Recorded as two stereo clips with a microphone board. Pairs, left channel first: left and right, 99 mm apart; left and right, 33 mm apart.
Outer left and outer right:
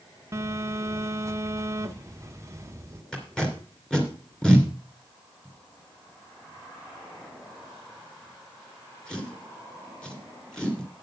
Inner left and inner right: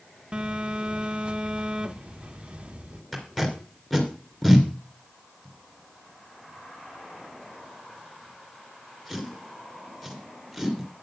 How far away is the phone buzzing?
About 0.9 m.